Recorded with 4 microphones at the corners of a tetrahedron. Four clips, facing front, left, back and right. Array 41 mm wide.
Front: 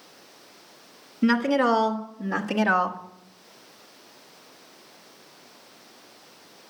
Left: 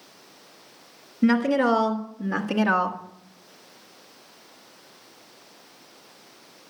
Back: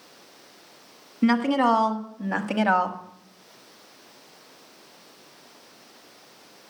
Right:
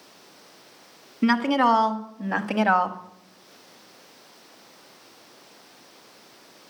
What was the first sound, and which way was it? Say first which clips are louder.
A woman speaking: even, even; 105° right.